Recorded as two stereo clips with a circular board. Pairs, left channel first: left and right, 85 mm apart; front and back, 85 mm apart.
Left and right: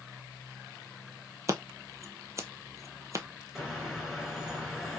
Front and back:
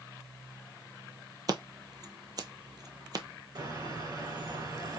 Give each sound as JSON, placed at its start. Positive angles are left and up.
{"t": 1.5, "sound": "scissors", "azimuth_deg": -140, "distance_m": 0.8}
{"t": 3.5, "sound": "a bird", "azimuth_deg": 180, "distance_m": 2.5}